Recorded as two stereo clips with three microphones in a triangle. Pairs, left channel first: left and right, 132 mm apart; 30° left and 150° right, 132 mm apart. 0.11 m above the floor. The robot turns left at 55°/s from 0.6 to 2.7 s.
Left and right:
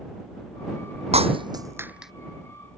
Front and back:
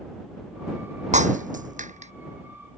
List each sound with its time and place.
1.1 s breaking glass: 125° right; by 2.1 s straight behind